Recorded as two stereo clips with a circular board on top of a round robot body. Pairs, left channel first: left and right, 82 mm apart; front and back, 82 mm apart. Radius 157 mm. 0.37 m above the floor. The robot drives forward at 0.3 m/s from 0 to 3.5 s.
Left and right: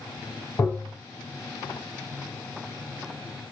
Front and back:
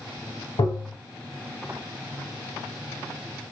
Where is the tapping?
20° left, 3 m.